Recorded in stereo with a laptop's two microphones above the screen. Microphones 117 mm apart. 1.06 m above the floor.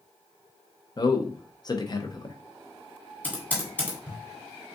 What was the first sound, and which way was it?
A man speaking, 40° left (ahead or behind).